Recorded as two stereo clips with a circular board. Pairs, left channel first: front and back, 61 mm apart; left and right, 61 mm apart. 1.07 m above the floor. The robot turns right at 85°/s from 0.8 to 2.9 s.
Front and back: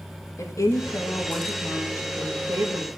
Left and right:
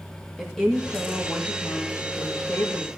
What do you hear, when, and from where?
0.4 s a woman speaking: 10° left, 2 m; by 2.9 s 170° right, 2 m